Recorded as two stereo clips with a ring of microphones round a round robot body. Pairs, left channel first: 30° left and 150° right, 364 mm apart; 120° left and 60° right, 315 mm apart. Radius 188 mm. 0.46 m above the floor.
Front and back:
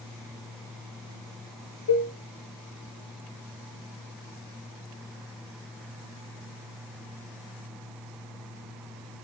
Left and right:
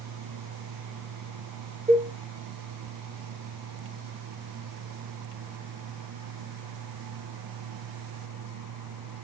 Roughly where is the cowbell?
Ahead.